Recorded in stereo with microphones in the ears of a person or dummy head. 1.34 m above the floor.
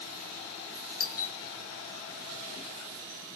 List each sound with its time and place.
1.0 s a doorbell: 45° left (ahead or behind), 0.6 m